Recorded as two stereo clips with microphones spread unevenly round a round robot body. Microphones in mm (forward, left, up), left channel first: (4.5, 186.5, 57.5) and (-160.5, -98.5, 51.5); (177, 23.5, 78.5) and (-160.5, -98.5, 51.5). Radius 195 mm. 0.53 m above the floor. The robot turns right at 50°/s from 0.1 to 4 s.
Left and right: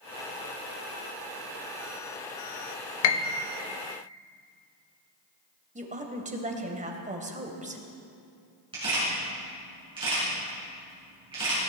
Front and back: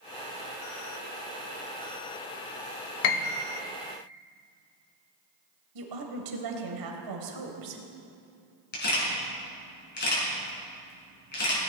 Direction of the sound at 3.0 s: 55° left.